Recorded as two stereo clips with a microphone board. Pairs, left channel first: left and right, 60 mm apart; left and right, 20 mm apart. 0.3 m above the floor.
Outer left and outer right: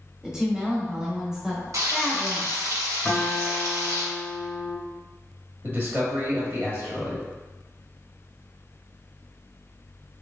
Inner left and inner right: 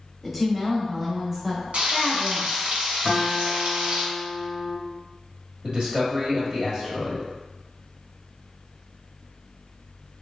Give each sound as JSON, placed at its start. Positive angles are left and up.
{"t": 0.2, "sound": "a woman speaking", "side_deg": -10, "distance_m": 1.2}
{"t": 1.7, "sound": "frying", "side_deg": -70, "distance_m": 1.1}
{"t": 3.0, "sound": "a guitar", "side_deg": 0, "distance_m": 1.4}
{"t": 5.6, "sound": "a man speaking", "side_deg": -35, "distance_m": 1.3}